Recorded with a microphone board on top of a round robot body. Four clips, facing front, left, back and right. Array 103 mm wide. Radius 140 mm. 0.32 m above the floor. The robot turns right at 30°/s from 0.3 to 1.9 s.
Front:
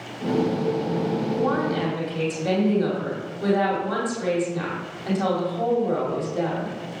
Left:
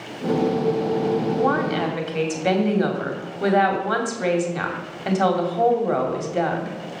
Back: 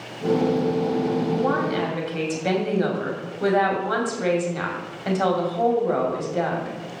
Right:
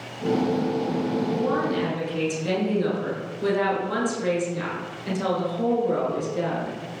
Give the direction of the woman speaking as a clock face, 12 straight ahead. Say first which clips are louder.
Left 3 dB, back 1 dB; 9 o'clock.